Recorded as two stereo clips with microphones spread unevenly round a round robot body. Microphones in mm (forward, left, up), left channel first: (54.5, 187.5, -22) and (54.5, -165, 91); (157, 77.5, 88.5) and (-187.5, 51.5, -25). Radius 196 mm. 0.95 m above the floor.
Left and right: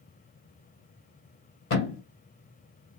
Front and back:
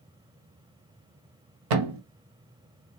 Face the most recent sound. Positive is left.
turn(degrees=160)